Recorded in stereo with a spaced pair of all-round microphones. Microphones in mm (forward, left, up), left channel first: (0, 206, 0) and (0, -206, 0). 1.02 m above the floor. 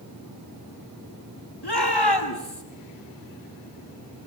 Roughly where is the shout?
Left.